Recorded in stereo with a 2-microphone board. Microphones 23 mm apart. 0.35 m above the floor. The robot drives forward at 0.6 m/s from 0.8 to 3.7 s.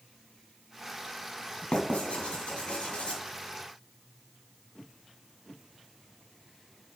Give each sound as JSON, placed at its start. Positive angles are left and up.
{"t": 1.7, "sound": "writing", "side_deg": 70, "distance_m": 2.5}